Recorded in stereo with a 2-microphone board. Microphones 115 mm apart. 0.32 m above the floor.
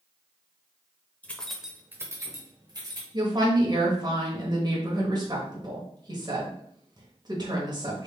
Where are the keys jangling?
15° left (ahead or behind), 0.7 m; by 3.0 s 40° right (ahead or behind), 1.3 m.